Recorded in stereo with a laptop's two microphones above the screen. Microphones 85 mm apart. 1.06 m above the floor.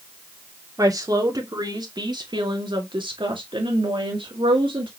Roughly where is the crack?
I don't hear a crack.